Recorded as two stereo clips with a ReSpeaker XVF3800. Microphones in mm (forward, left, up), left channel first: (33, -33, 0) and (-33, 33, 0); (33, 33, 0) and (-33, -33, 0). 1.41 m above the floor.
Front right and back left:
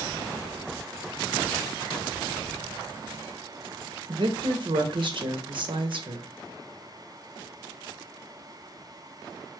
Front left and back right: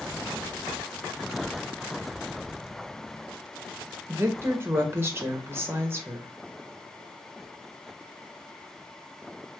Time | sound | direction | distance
4.1 | a woman speaking | 160° left | 0.6 m